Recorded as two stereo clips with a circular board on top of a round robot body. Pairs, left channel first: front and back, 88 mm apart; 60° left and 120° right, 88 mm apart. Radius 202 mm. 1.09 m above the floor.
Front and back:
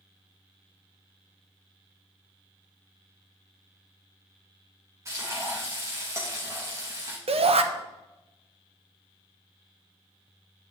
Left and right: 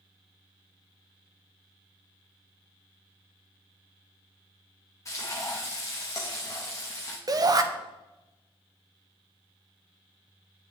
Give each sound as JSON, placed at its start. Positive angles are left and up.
{"t": 5.0, "sound": "frying", "azimuth_deg": 120, "distance_m": 0.6}
{"t": 7.3, "sound": "a shout", "azimuth_deg": -170, "distance_m": 0.8}